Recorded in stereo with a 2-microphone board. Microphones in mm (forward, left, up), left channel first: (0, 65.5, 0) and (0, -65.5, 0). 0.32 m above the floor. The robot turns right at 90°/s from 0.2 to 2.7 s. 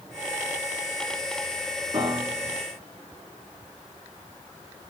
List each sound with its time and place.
1.9 s a piano: 50° right, 2.5 m; by 2.6 s 10° left, 2.5 m